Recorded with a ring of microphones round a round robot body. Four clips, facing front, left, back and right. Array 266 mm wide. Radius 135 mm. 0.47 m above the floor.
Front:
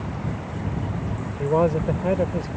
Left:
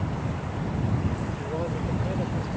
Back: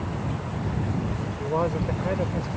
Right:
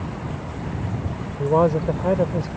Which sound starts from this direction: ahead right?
A man speaking, at 1.4 s.